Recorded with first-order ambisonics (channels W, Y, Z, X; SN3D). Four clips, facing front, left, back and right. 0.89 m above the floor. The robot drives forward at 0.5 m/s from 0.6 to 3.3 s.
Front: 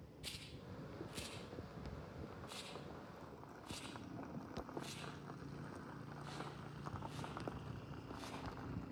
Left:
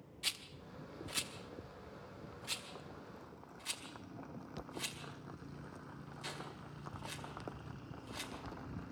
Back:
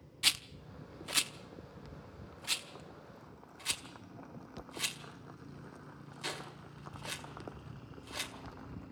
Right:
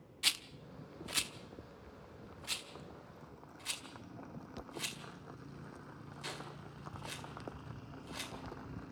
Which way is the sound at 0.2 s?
155° right.